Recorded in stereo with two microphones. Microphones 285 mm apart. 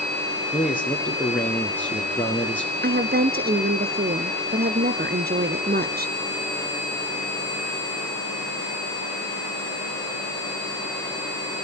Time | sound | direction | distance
0.5 | a man speaking | 5° left (ahead or behind) | 4 m
2.8 | a woman speaking | 35° right (ahead or behind) | 2.0 m